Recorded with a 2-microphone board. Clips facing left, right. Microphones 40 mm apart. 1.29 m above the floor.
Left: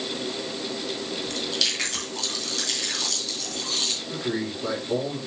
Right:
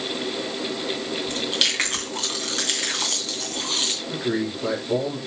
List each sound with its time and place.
1.3 s chewing: 45° right (ahead or behind), 2.5 m
4.1 s a man speaking: 20° right (ahead or behind), 4.5 m